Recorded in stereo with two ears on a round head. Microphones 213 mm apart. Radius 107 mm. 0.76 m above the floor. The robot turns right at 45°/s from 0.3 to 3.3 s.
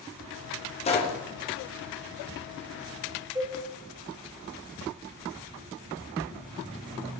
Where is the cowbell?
15° right (ahead or behind), 3 m.